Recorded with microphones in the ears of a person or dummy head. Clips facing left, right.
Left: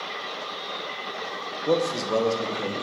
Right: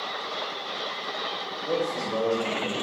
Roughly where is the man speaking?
Left.